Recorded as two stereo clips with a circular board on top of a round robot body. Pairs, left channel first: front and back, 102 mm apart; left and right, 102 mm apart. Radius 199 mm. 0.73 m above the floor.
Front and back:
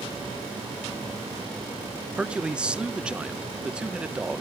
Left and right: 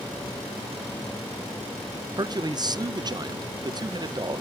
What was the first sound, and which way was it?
A man speaking, 105° right.